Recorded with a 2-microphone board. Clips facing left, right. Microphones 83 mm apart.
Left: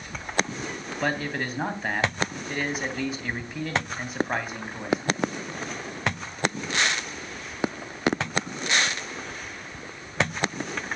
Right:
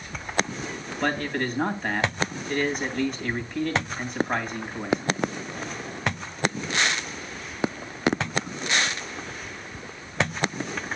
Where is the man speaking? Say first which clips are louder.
Right 2 dB; 5° left (ahead or behind), 2.5 m.